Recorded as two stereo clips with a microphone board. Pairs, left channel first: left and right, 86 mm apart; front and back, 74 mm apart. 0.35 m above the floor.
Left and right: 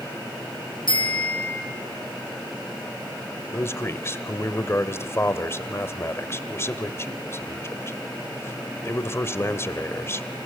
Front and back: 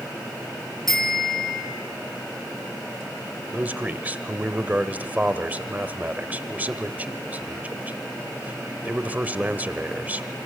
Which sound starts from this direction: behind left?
A man speaking, at 3.5 s.